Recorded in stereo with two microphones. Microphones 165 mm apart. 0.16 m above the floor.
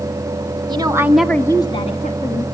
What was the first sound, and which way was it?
A woman speaking, 25° right (ahead or behind).